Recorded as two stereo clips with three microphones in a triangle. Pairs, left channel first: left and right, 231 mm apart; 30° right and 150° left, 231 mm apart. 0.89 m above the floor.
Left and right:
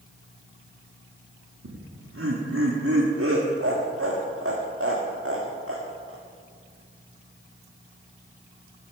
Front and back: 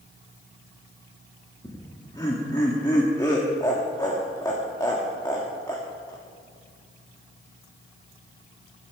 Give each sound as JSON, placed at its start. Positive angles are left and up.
{"t": 1.6, "sound": "laughter", "azimuth_deg": -105, "distance_m": 1.5}